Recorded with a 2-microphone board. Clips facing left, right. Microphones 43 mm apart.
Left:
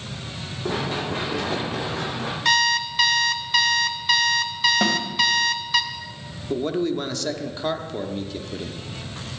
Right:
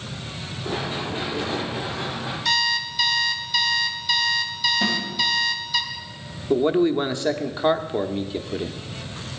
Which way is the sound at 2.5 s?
45° left (ahead or behind).